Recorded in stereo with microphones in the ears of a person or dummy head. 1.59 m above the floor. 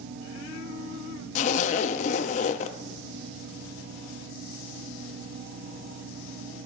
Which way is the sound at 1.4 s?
45° left (ahead or behind).